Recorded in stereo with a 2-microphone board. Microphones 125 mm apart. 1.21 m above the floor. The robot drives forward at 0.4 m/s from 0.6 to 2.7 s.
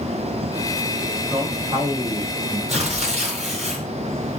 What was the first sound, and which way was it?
A man speaking, 45° right (ahead or behind).